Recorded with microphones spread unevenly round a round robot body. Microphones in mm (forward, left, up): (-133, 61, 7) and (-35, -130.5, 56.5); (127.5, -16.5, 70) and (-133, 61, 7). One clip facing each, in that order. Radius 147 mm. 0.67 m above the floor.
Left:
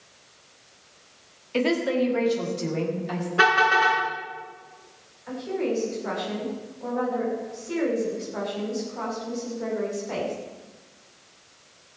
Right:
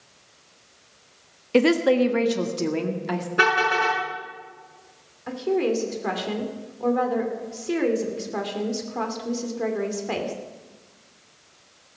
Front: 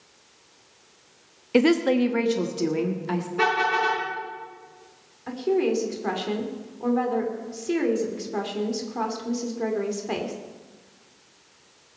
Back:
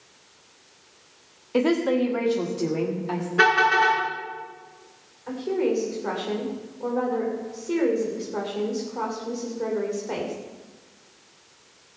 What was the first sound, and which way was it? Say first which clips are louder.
A woman speaking: right 5 dB, front 2 dB; 55° right.